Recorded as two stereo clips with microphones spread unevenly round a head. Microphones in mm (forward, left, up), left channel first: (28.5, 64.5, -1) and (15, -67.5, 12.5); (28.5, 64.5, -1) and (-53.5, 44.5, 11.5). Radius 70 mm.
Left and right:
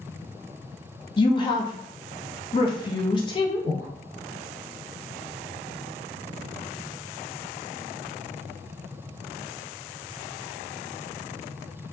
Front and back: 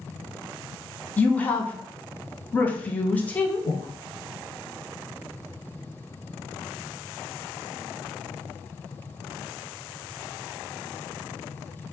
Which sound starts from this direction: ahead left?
A woman speaking, at 1.2 s.